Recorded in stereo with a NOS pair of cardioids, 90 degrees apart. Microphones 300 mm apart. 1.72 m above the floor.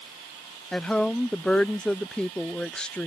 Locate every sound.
0.7 s a woman speaking: 5° left